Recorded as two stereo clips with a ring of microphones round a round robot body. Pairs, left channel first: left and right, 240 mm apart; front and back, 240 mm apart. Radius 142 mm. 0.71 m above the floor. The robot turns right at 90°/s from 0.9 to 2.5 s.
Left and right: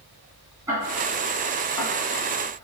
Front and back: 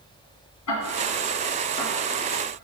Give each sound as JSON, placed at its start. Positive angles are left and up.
{"t": 0.7, "sound": "ticking", "azimuth_deg": -10, "distance_m": 1.7}